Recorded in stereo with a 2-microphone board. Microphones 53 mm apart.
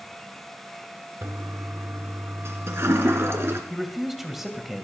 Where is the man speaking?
5° right (ahead or behind), 2.5 m.